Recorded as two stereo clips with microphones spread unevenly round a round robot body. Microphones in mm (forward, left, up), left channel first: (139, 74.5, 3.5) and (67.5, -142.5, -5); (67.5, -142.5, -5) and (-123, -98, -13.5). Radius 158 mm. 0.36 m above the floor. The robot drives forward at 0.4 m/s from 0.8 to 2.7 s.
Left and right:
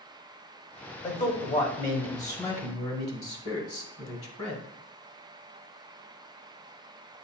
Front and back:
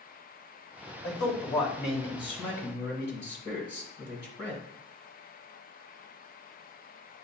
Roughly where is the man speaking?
Ahead left.